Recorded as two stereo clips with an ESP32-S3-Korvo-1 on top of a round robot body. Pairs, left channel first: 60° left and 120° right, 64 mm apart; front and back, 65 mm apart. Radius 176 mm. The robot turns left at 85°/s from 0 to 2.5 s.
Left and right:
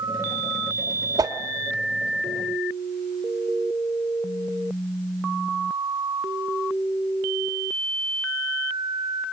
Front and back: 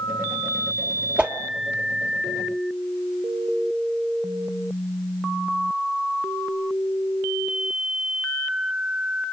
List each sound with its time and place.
1.2 s a whoosh: 105° right, 1.4 m; by 1.4 s 120° right, 1.4 m